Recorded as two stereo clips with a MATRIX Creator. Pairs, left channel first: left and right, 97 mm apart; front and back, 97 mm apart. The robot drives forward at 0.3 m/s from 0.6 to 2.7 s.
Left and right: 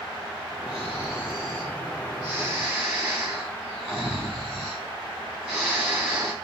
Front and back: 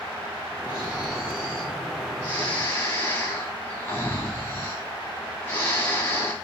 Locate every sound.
0.7 s snoring: 20° right, 1.3 m; by 6.3 s 55° right, 1.0 m